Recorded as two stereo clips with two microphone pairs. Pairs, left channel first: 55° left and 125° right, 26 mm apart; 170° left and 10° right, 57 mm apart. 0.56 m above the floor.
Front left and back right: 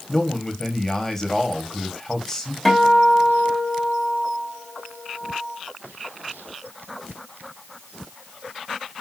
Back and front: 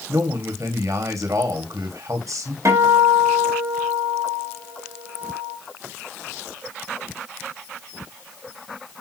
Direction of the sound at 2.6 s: 25° right.